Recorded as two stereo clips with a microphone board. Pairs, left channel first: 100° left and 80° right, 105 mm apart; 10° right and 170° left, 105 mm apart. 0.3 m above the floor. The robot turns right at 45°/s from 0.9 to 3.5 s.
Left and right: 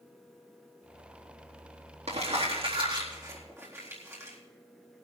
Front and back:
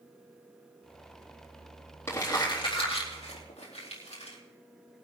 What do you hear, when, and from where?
2.1 s crumpling: 80° right, 4 m; by 4.4 s 15° right, 4 m